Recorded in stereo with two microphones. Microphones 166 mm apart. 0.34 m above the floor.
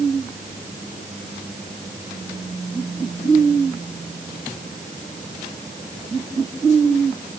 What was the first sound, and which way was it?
Only background noise.